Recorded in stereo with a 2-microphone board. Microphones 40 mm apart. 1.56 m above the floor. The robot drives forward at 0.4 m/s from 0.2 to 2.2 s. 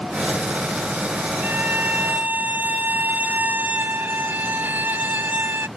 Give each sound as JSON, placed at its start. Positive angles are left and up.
{"t": 1.4, "sound": "a violin", "side_deg": -60}